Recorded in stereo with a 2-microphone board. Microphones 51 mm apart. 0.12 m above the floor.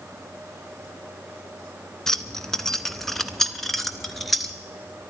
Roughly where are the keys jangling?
Centre.